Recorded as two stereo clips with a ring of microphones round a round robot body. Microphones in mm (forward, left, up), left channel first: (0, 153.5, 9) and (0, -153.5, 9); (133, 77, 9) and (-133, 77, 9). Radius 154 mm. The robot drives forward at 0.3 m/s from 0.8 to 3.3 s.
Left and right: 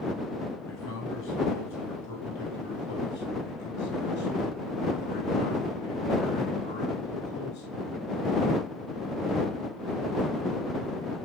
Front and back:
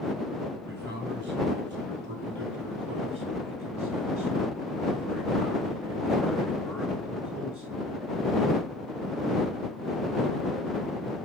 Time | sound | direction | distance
0.7 | a man speaking | 135° left | 2.5 m